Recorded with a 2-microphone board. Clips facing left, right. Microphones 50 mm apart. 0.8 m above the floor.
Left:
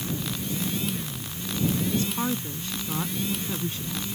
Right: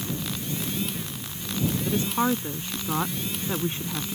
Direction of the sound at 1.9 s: 30° right (ahead or behind).